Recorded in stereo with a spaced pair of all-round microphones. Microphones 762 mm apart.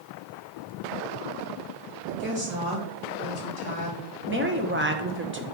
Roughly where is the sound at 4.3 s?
Centre.